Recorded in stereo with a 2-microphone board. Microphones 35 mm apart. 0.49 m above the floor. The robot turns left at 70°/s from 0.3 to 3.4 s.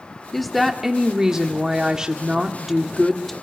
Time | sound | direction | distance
0.3 | a woman speaking | 5° left (ahead or behind) | 1.2 m